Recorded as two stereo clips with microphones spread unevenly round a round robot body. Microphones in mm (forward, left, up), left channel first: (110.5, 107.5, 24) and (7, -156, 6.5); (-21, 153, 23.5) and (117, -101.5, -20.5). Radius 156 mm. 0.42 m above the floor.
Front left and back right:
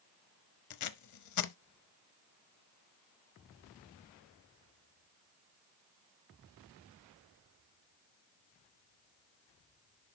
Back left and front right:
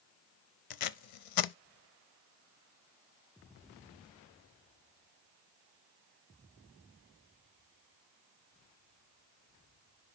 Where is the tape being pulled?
105° left, 0.7 m.